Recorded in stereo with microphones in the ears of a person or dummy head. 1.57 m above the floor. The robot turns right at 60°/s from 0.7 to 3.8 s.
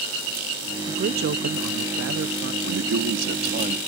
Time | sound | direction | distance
0.9 | a man speaking | 145° right | ?
2.6 | a man speaking | 105° right | ?